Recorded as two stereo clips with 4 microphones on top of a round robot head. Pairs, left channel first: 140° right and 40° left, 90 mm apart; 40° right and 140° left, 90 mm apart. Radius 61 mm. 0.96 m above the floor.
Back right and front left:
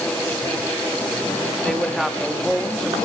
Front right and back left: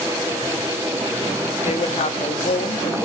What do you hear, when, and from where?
1.6 s a woman speaking: 50° right, 1.7 m